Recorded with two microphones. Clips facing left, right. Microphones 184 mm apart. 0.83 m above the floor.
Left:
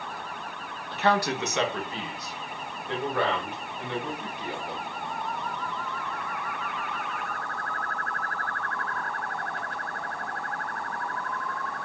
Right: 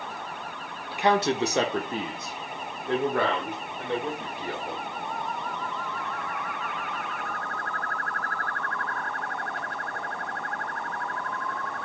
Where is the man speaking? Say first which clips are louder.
Right 2 dB; 10° right (ahead or behind), 0.5 m; by 4.8 s 40° right (ahead or behind), 2 m.